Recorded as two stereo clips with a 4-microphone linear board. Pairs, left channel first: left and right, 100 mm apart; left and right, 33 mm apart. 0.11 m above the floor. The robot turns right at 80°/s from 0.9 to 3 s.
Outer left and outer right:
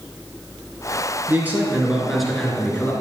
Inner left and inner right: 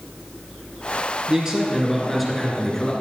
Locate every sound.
1.3 s a man speaking: 20° right (ahead or behind), 1.5 m; by 2.9 s 15° left (ahead or behind), 1.5 m